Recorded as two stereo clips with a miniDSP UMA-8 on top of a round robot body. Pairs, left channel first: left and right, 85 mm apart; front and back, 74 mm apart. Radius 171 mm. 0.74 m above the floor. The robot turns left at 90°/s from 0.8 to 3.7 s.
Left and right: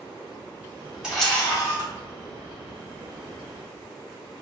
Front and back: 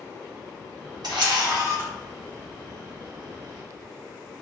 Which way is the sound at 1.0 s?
170° right.